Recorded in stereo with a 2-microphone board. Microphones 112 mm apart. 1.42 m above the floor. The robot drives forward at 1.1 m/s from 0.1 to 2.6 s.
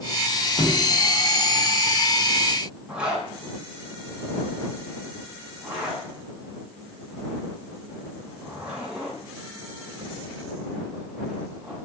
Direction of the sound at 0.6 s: 75° left (ahead or behind).